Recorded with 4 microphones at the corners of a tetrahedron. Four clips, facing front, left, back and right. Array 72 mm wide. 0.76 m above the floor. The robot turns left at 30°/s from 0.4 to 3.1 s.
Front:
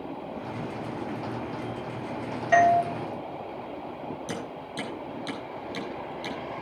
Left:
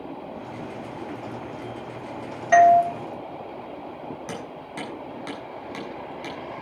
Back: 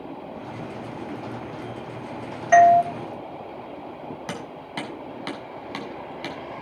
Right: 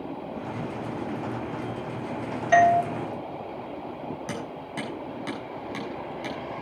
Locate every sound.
2.5 s a doorbell: 155° left, 1.6 m; by 2.8 s 145° left, 1.6 m
4.3 s hammering: straight behind, 6.5 m